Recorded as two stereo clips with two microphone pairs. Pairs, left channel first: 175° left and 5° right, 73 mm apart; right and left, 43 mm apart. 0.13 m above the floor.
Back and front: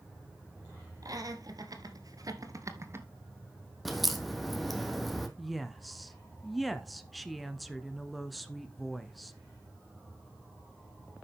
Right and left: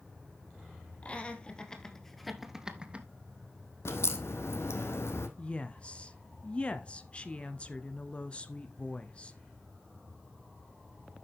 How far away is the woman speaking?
About 1.2 m.